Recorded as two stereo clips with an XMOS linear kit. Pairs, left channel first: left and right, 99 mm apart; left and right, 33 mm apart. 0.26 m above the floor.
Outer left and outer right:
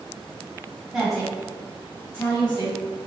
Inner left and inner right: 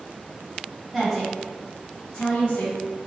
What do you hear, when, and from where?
0.9 s a woman speaking: 10° right (ahead or behind), 1.6 m; by 2.8 s 40° left (ahead or behind), 1.7 m